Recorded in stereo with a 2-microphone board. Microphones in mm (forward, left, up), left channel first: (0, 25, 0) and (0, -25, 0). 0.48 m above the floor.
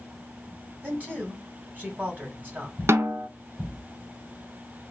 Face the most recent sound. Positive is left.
turn(degrees=-65)  # may be behind; listen again after turning